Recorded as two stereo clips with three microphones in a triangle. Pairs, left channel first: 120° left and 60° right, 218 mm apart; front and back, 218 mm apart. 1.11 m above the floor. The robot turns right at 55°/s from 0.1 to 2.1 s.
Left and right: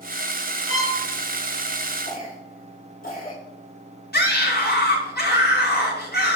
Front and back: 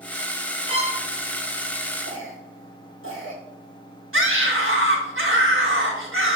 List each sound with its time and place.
0.7 s a violin: 115° left, 2.5 m; by 1.0 s 130° left, 2.5 m
2.0 s a cough: 165° left, 4.5 m; by 3.4 s 170° left, 4.5 m
4.1 s a scream: 165° left, 5 m